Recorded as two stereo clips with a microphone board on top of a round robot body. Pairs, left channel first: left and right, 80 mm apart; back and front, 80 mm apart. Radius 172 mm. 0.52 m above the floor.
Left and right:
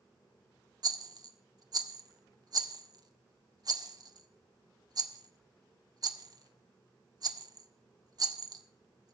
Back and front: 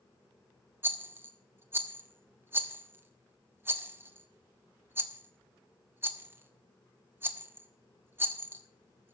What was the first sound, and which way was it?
A rattle, 60° right.